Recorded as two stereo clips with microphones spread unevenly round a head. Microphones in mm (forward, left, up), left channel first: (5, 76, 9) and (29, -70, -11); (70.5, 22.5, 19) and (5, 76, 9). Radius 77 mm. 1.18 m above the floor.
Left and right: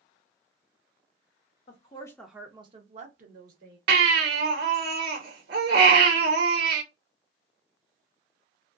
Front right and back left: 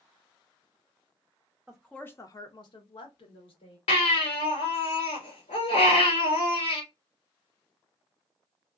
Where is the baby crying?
65° right, 1.2 m.